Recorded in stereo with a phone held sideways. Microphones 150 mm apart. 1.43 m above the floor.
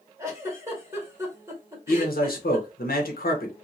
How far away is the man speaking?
About 1.1 m.